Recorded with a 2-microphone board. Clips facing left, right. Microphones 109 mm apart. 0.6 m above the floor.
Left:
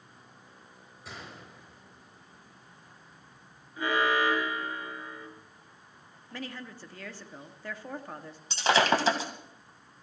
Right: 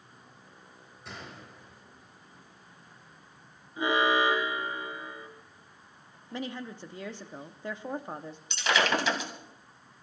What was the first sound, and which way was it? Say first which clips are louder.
A gunshot: right 1 dB; centre (ahead or behind).